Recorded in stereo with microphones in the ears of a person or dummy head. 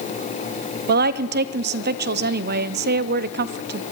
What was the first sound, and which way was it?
A woman speaking, 55° right (ahead or behind).